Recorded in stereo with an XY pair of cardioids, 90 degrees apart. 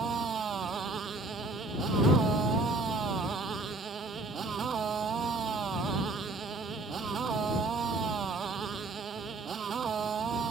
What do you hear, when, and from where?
0.0 s a motorcycle: 55° right